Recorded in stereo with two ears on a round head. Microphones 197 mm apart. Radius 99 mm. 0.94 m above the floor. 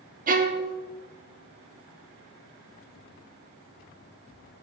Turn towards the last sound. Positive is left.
turn(degrees=-40)  # may be behind; listen again after turning